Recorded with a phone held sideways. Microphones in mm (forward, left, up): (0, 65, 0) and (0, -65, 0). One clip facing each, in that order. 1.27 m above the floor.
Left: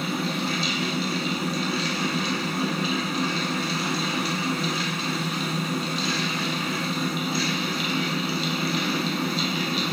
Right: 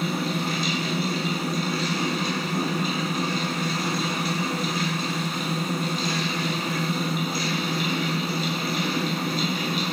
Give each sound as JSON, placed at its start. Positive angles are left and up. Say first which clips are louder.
{"t": 0.0, "sound": "a fan", "louder": "right 1 dB", "side_deg": -45, "distance_m": 0.8}